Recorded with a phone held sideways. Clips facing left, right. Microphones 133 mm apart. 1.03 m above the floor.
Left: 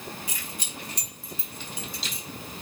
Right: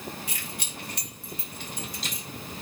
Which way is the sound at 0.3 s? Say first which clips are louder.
Even; 70° right (ahead or behind).